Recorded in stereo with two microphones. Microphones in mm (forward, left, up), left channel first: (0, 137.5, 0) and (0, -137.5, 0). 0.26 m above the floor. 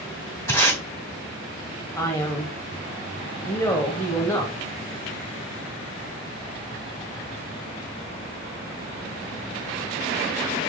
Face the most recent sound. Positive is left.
turn(degrees=10)  # may be behind; listen again after turning